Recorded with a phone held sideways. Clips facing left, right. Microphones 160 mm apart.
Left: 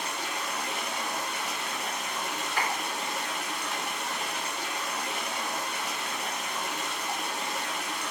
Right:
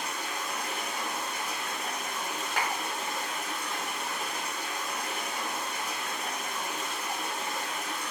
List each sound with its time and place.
0.0 s running water: 75° left (ahead or behind), 0.9 m
2.6 s a clap: 80° right, 1.4 m